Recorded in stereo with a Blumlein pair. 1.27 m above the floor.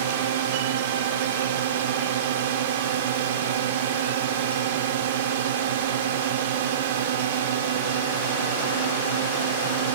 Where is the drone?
60° right.